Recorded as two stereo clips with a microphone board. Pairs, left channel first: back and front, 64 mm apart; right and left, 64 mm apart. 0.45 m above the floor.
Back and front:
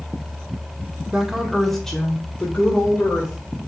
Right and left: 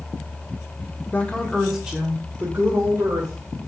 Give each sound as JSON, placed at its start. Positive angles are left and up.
{"t": 1.1, "sound": "a woman speaking", "azimuth_deg": -70, "distance_m": 0.8}